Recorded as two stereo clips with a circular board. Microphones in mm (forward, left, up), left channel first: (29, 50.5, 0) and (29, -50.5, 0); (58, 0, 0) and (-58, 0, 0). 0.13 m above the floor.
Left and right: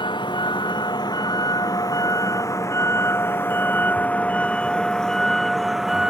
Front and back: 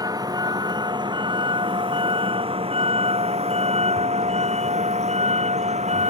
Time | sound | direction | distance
0.0 | a vehicle | 125° left | ?